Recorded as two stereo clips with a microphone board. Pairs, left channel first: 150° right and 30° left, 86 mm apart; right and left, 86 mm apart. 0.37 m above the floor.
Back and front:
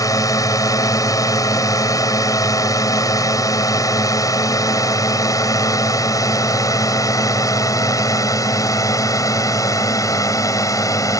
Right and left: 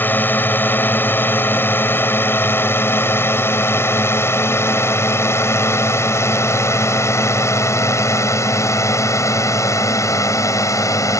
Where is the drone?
145° right; by 11.2 s 125° right.